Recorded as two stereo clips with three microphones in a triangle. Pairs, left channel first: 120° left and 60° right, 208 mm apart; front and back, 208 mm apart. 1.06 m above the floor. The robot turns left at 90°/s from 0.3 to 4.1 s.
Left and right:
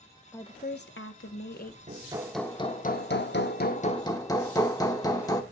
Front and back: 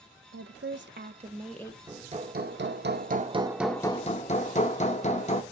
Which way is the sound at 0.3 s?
160° right.